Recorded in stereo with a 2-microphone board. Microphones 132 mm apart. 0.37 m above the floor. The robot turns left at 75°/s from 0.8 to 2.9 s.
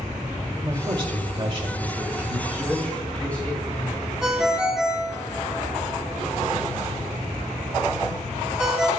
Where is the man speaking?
15° right (ahead or behind), 2 m; by 4.1 s 10° left (ahead or behind), 2 m.